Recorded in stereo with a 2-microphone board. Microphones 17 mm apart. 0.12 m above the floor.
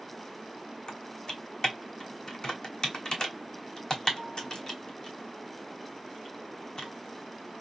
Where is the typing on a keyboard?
50° left (ahead or behind), 1.3 m.